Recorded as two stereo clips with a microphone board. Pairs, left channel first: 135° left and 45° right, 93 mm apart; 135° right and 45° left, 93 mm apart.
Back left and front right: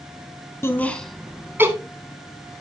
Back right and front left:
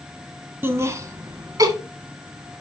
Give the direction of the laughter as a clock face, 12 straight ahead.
9 o'clock.